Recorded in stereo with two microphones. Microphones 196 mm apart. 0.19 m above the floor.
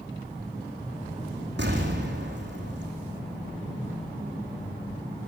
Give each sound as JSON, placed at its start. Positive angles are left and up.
{"t": 1.6, "sound": "an explosion", "side_deg": -65, "distance_m": 7.0}